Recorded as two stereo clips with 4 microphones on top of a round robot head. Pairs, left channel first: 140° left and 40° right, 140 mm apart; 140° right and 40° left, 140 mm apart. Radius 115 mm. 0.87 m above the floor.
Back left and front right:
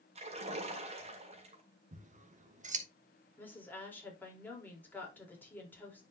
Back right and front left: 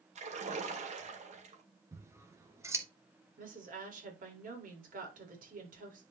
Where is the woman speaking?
60° left, 4.5 m.